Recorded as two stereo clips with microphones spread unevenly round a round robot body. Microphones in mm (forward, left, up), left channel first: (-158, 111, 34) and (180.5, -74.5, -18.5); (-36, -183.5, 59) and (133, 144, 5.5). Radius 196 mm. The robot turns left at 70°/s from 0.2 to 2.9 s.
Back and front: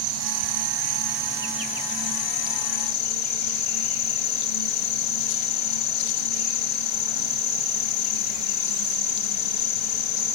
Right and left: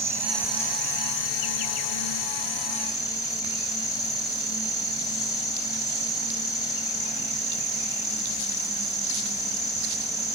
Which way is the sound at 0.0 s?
15° right.